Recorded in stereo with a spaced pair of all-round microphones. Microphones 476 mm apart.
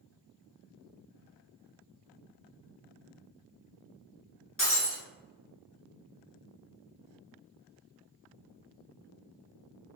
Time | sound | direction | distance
4.6 | breaking glass | 25° left (ahead or behind) | 1.3 m